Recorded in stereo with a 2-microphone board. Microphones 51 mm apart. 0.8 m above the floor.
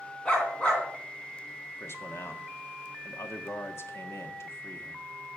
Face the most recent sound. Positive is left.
turn(degrees=60)  # may be behind; listen again after turning